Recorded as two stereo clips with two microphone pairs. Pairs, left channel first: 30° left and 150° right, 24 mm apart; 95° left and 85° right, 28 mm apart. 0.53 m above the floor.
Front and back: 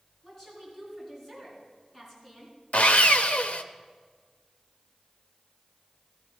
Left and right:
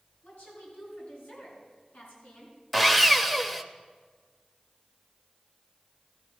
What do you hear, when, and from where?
0.2 s a woman speaking: 95° left, 5.5 m
2.7 s sawing: 5° left, 0.6 m